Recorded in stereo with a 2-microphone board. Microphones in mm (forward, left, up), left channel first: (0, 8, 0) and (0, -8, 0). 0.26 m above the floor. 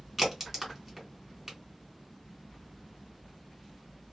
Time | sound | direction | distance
0.2 | a crack | 20° right (ahead or behind) | 1.9 m